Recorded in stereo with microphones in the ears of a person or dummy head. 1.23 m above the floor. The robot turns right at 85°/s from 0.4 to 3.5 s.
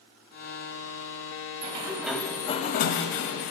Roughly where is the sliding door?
Ahead right.